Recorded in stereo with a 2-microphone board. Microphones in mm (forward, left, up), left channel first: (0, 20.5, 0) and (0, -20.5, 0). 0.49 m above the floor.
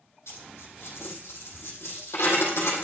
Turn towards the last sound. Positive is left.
turn(degrees=80)